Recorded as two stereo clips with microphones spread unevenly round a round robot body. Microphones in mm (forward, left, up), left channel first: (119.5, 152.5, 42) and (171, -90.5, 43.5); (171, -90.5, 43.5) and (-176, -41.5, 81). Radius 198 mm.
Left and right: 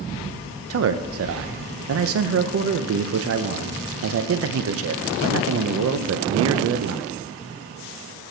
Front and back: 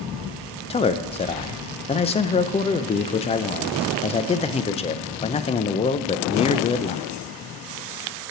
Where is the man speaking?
75° right, 0.5 m.